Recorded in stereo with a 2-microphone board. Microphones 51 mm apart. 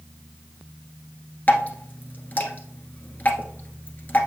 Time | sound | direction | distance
1.5 | dripping | 40° left (ahead or behind) | 1.2 m